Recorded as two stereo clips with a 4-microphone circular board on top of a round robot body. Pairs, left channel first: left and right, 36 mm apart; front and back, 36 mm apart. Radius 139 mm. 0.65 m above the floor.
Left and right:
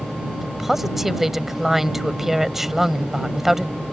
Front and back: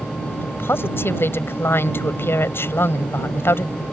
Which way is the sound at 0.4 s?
10° right.